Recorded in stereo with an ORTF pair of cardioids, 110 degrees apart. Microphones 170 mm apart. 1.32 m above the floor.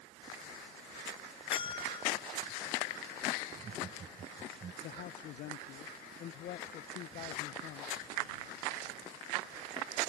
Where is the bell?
30° left.